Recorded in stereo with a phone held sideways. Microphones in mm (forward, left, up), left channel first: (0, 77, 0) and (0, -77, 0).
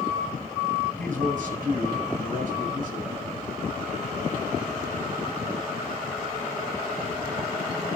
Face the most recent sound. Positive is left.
turn(degrees=-60)  # may be behind; listen again after turning